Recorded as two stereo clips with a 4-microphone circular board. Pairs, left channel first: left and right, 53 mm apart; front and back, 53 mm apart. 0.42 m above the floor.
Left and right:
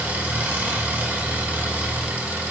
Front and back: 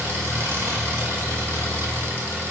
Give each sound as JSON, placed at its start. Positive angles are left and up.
{"t": 0.0, "sound": "an engine running", "azimuth_deg": -150, "distance_m": 1.8}